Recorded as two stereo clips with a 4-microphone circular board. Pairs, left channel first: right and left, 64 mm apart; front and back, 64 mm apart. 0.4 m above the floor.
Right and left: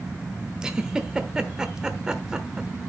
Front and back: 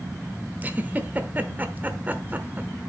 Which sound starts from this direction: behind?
A giggle, at 0.6 s.